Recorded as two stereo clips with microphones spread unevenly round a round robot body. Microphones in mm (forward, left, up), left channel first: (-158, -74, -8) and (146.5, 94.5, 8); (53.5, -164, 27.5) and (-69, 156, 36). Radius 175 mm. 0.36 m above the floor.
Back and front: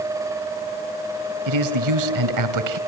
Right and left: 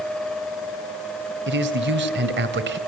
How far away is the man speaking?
About 2.5 m.